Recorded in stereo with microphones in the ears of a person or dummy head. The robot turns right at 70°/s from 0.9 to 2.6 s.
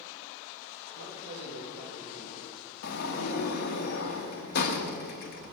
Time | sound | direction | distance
0.9 | a man speaking | 90° right | 2.5 m
2.8 | a sliding door | 50° left (ahead or behind) | 1.1 m